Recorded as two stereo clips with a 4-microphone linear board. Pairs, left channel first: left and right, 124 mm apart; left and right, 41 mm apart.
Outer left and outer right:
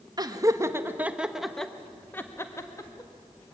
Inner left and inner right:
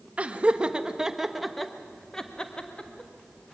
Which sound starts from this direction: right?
Laughter, at 0.2 s.